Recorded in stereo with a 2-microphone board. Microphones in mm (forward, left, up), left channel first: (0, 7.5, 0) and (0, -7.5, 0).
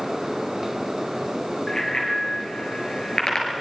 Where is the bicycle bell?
40° left (ahead or behind), 7 m; by 3.5 s 60° left (ahead or behind), 6.5 m.